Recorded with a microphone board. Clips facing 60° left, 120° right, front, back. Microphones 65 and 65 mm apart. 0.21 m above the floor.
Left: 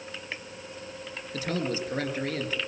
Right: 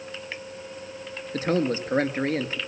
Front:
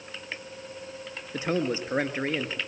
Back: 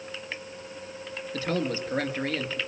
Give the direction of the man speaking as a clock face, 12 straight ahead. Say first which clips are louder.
Right 6 dB, front 1 dB; 2 o'clock.